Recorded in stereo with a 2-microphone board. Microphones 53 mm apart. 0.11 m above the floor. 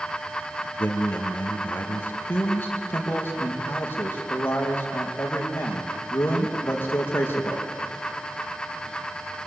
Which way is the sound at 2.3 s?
40° left (ahead or behind).